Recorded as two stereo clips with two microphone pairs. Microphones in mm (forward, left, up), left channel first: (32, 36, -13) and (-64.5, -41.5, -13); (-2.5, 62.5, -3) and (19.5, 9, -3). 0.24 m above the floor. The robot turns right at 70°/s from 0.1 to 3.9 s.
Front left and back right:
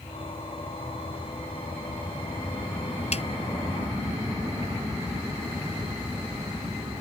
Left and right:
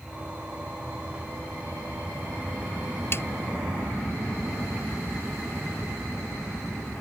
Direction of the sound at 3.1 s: 65° left.